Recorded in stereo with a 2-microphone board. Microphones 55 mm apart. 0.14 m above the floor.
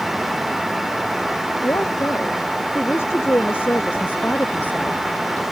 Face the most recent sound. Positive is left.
turn(degrees=25)  # may be behind; listen again after turning